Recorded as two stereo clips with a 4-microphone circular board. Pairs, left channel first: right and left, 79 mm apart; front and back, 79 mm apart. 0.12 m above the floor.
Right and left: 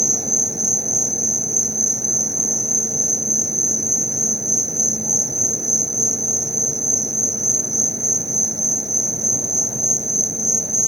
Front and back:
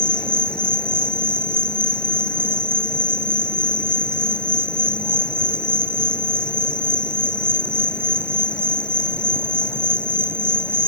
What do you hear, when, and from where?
0.0 s an insect: 75° left